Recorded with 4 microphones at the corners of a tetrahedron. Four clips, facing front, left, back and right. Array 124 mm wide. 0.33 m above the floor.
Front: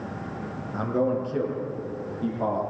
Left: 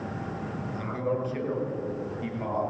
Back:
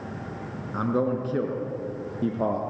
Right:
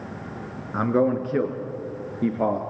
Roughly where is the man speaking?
Right.